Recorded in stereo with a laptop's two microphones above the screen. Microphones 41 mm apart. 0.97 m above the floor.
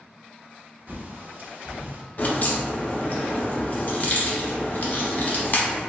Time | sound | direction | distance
0.9 | a bird | 45° right (ahead or behind) | 0.6 m
2.2 | a crack | 40° left (ahead or behind) | 0.6 m